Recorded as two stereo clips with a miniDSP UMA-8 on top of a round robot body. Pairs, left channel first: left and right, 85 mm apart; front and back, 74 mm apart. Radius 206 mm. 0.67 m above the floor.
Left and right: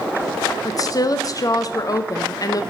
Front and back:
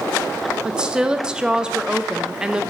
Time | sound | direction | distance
0.7 | a woman speaking | 105° left | 0.7 m